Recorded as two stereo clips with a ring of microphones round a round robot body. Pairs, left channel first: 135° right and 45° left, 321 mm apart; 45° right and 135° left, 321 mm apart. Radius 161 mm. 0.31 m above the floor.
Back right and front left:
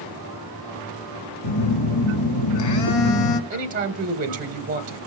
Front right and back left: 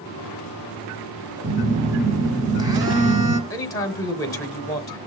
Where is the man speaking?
20° left, 1.0 m.